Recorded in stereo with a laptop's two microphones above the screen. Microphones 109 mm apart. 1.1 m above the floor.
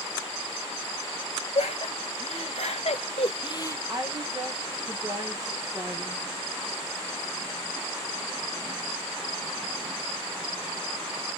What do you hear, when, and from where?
1.6 s laughter: 75° left (ahead or behind), 1.7 m; by 3.8 s 25° left (ahead or behind), 0.6 m
3.9 s a woman speaking: 35° right (ahead or behind), 1.0 m